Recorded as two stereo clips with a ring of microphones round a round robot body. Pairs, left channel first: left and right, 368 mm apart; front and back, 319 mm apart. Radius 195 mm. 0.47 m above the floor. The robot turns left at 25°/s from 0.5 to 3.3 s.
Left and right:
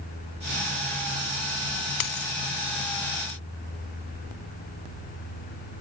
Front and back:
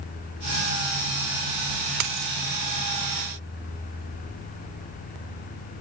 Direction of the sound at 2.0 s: 135° left.